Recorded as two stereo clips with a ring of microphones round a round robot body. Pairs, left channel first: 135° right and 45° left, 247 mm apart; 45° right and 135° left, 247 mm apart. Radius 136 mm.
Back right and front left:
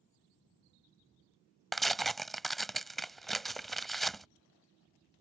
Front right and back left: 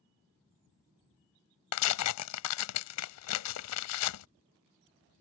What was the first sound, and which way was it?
Tearing paper, 45° right.